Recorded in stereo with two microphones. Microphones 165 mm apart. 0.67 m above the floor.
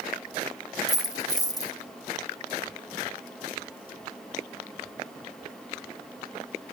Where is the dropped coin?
20° left (ahead or behind), 0.8 m.